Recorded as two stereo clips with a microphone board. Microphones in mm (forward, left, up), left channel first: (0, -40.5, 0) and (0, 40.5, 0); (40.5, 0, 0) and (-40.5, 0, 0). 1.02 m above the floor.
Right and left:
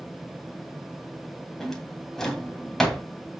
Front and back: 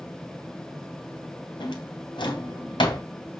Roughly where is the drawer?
Ahead.